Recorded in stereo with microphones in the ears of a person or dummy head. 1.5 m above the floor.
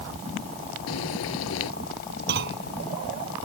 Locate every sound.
0.9 s frying: 85° left
2.3 s a clunk: 60° right (ahead or behind)